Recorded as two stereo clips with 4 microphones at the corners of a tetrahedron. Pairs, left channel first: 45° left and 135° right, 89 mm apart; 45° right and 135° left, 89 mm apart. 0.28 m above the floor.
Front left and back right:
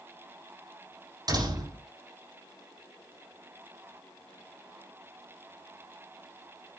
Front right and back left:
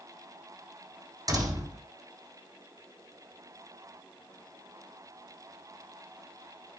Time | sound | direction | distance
1.3 | a door slam | straight behind | 8 m